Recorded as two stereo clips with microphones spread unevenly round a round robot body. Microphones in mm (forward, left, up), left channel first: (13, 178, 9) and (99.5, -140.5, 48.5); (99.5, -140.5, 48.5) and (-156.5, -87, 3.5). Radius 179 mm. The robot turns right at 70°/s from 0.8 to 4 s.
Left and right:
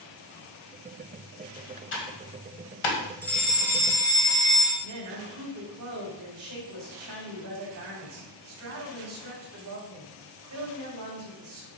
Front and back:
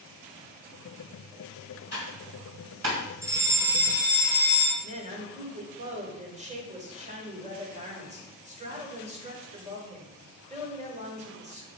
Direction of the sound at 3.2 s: 160° left.